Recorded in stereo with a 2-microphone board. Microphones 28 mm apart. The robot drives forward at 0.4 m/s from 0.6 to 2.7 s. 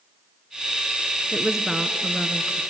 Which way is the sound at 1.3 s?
20° right (ahead or behind).